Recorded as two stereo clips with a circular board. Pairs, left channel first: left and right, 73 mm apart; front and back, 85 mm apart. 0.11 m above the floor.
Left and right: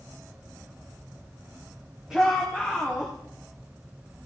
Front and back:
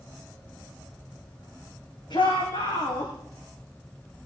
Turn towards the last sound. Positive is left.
turn(degrees=-15)